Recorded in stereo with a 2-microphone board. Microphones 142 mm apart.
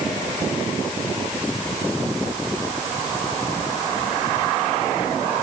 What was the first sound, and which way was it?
Only background noise.